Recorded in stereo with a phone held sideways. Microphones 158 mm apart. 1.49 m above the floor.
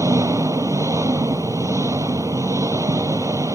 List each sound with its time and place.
0.0 s an engine running: 20° right (ahead or behind)